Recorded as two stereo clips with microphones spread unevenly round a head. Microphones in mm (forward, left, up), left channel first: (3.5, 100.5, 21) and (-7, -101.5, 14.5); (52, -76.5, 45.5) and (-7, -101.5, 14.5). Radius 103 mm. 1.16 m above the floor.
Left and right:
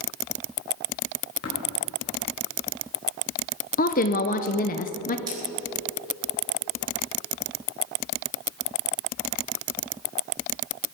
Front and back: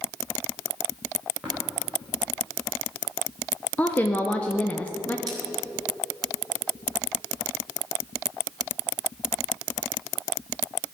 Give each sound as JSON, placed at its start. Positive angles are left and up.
{"t": 1.4, "sound": "tapping", "azimuth_deg": 125, "distance_m": 4.0}
{"t": 3.8, "sound": "a woman speaking", "azimuth_deg": 120, "distance_m": 0.8}
{"t": 5.3, "sound": "cutlery clinking", "azimuth_deg": -165, "distance_m": 3.5}